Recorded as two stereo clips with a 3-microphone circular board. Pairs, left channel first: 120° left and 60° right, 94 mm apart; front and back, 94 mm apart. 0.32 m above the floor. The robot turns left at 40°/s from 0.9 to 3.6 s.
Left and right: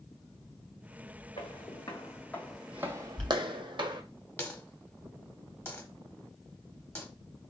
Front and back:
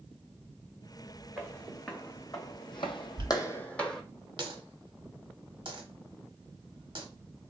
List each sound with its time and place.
1.4 s footsteps: 105° left, 1.2 m; by 4.0 s 85° right, 0.7 m
3.2 s a dropped coin: 165° right, 0.8 m; by 7.0 s straight behind, 0.8 m